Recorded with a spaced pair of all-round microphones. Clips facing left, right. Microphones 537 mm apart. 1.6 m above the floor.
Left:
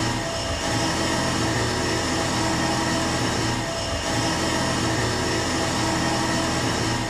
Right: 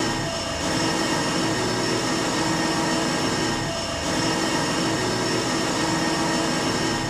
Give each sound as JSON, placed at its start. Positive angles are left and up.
{"t": 0.0, "sound": "an engine running", "side_deg": -25, "distance_m": 1.2}